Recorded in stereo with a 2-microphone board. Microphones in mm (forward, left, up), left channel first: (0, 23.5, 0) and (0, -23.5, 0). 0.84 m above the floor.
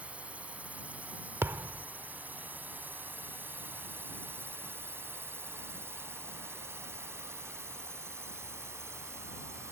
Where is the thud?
55° right (ahead or behind).